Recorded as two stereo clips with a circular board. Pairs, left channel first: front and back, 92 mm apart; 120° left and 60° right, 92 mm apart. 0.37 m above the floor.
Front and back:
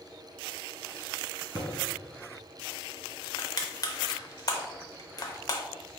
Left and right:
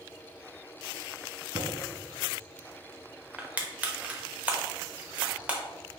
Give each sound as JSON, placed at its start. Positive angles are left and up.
{"t": 1.6, "sound": "a thud", "azimuth_deg": -120, "distance_m": 1.9}
{"t": 3.4, "sound": "crushing", "azimuth_deg": 5, "distance_m": 0.7}